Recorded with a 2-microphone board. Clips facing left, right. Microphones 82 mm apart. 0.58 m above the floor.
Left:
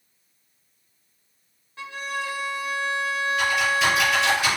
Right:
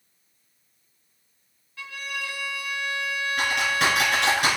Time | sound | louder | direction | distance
1.8 | a violin | left 4 dB | 30° left (ahead or behind) | 0.6 m
3.4 | typing on a keyboard | left 1 dB | 75° right (ahead or behind) | 4 m